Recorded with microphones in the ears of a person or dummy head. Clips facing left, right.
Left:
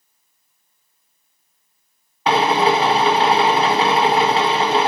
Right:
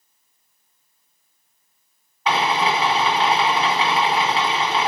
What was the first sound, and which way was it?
A drill, 25° left (ahead or behind).